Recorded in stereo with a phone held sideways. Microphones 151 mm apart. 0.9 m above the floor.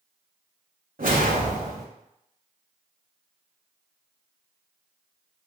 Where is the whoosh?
60° right (ahead or behind), 0.7 m.